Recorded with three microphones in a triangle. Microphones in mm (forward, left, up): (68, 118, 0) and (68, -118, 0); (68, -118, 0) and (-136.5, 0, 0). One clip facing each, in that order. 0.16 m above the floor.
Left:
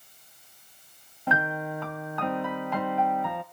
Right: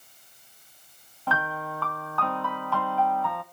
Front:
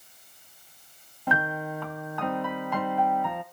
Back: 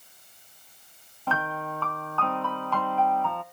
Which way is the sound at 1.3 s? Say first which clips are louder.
Left 3 dB, front 2 dB; 35° left.